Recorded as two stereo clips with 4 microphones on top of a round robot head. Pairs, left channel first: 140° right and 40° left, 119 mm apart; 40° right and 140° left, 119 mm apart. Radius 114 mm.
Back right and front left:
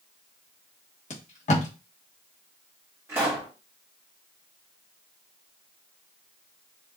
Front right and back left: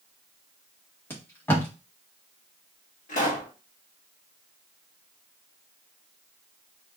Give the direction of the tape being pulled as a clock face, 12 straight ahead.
4 o'clock.